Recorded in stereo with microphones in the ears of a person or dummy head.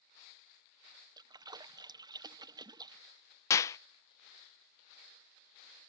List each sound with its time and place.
1.2 s a splash: 15° right (ahead or behind)
3.5 s a clap: 20° left (ahead or behind)